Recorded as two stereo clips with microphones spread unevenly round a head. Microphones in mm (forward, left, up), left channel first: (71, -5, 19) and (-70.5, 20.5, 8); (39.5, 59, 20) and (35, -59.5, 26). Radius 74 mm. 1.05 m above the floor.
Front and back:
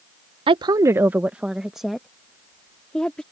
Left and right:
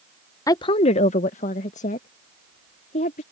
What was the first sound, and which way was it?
A woman speaking, 140° left.